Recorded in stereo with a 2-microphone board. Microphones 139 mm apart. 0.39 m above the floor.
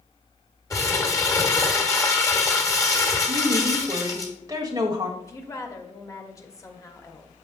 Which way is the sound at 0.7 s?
25° left (ahead or behind).